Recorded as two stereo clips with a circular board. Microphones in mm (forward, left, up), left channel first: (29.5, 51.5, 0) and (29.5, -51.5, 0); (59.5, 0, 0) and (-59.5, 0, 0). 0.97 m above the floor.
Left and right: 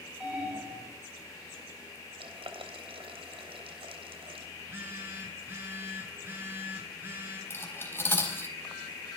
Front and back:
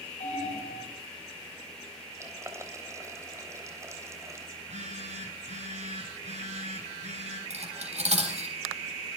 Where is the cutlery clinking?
155° left, 3.5 m.